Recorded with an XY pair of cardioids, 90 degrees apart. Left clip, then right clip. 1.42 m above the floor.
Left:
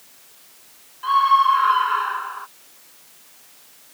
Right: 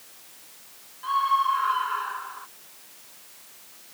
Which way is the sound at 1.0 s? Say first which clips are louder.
Left 7 dB; 55° left.